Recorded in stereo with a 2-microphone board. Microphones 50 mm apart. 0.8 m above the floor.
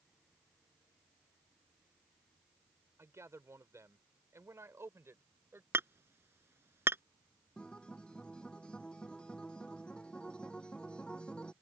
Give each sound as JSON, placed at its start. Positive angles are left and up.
{"t": 3.0, "sound": "a man speaking", "side_deg": -65}
{"t": 5.7, "sound": "hammering", "side_deg": -55}
{"t": 7.6, "sound": "a guitar", "side_deg": 20}